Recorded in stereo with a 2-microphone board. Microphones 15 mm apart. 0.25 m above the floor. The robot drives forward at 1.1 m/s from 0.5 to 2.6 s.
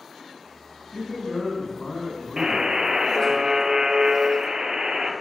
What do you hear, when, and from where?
0.9 s a man speaking: 35° left (ahead or behind), 2.5 m; by 3.4 s 40° left (ahead or behind), 2.5 m
2.4 s a buzzer: 50° right (ahead or behind), 1.1 m; by 5.1 s 60° right (ahead or behind), 0.9 m